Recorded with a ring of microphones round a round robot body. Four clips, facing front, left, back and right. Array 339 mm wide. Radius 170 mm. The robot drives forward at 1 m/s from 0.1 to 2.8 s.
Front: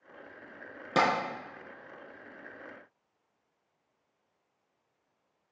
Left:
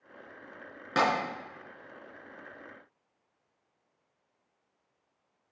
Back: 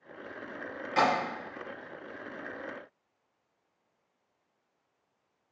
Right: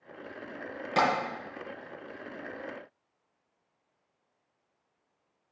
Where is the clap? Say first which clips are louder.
Right 1 dB, even; 20° left, 4.5 m; by 1.1 s 25° left, 4.5 m.